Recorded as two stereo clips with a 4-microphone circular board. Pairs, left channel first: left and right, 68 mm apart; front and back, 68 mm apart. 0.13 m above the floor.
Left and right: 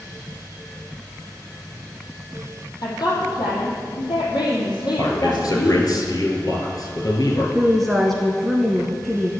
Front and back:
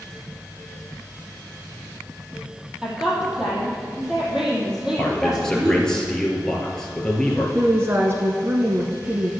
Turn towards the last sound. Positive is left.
turn(degrees=175)